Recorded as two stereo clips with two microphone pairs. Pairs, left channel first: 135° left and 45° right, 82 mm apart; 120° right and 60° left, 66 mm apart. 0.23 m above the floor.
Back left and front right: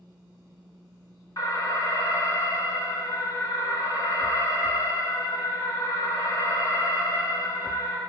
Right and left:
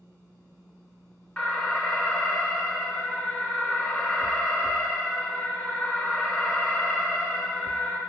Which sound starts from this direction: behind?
An alarm, at 1.4 s.